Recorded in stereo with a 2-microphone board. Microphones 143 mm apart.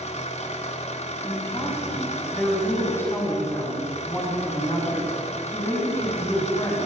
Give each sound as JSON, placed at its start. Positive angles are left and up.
{"t": 0.0, "sound": "an engine running", "side_deg": 50, "distance_m": 2.5}
{"t": 1.2, "sound": "a woman speaking", "side_deg": 15, "distance_m": 9.0}